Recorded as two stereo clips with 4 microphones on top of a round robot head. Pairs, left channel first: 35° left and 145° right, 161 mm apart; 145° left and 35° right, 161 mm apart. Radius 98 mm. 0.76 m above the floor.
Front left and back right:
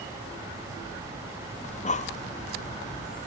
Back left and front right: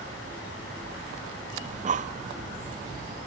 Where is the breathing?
Straight ahead, 0.9 m.